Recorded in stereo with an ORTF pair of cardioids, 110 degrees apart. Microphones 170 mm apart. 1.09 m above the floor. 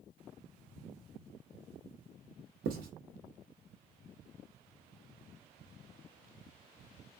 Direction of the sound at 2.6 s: 70° right.